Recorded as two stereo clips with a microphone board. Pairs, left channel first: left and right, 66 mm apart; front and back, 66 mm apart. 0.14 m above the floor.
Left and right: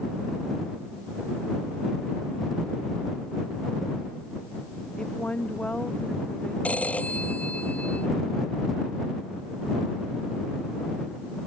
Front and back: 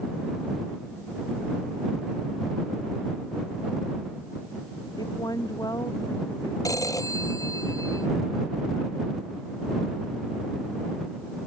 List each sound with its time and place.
5.0 s a woman speaking: 15° left
6.7 s a phone ringing: 20° left